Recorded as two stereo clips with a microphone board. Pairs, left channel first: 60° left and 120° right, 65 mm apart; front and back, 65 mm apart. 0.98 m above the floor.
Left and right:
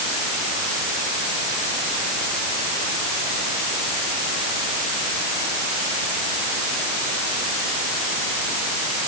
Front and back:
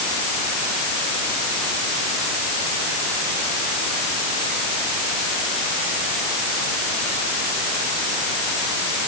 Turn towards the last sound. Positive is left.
No sound to turn to.